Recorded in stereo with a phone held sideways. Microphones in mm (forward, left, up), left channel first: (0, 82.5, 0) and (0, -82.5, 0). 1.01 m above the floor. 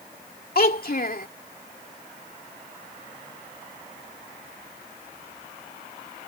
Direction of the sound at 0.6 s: 65° left (ahead or behind).